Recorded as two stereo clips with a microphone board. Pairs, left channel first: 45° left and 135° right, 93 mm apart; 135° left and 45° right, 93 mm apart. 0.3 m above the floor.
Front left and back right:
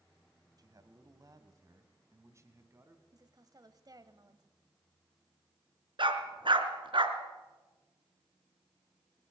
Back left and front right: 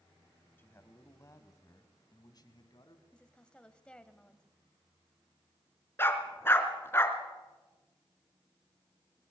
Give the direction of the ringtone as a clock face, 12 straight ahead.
No ringtone in this recording.